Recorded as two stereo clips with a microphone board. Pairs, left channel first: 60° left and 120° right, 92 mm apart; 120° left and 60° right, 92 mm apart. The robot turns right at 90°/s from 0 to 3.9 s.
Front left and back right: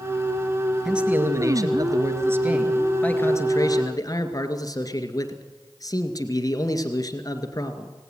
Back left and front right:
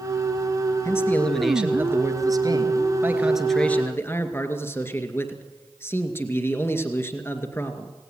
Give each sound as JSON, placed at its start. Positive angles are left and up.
{"t": 0.8, "sound": "a man speaking", "azimuth_deg": 155, "distance_m": 2.0}